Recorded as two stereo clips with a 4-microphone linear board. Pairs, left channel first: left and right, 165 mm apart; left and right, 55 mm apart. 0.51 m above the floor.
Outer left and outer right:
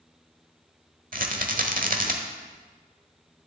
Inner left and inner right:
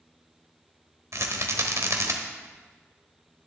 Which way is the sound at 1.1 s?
60° right (ahead or behind).